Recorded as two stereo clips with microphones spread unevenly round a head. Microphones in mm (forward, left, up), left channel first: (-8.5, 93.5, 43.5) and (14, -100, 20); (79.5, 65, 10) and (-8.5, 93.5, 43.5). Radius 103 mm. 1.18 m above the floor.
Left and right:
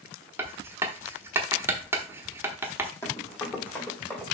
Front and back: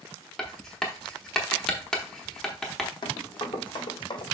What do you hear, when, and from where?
0.4 s writing: 160° right, 0.8 m
3.0 s running footsteps: 25° left, 3 m; by 4.2 s 15° left, 3.5 m